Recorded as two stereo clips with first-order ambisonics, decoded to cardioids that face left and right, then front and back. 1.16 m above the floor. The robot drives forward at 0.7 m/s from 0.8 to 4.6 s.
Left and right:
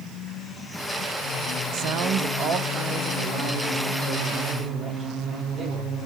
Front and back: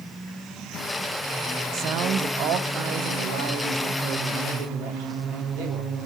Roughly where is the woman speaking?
Behind right.